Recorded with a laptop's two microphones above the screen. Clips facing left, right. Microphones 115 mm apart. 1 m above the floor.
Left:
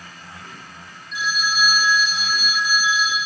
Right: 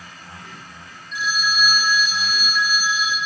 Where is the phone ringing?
5° left (ahead or behind), 3 m.